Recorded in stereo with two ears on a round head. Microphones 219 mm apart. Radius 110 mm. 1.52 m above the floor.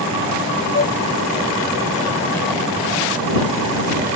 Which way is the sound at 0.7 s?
35° left (ahead or behind).